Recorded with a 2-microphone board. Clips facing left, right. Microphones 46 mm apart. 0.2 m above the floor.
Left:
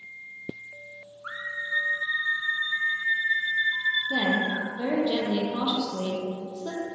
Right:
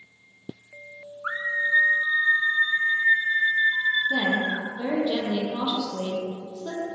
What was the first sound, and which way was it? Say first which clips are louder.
A scream: right 7 dB; 35° right (ahead or behind).